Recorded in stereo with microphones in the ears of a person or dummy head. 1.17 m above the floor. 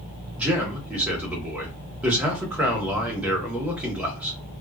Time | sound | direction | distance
0.4 | a man speaking | 5° right (ahead or behind) | 1.0 m